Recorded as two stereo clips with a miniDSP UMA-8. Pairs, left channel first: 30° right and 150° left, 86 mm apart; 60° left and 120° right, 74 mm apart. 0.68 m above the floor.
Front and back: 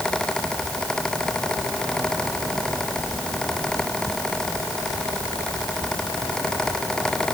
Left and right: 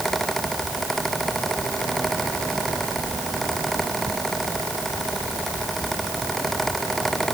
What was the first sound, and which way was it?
Only background noise.